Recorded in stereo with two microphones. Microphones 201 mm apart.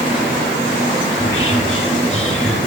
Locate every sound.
1.1 s whispering: 85° left, 1.8 m